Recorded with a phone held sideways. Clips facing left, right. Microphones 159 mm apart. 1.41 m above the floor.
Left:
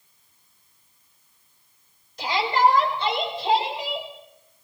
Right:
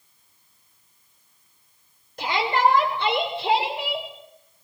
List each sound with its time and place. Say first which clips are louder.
2.2 s a shout: left 1 dB; 60° right (ahead or behind), 6.5 m; by 4.1 s 70° right (ahead or behind), 8 m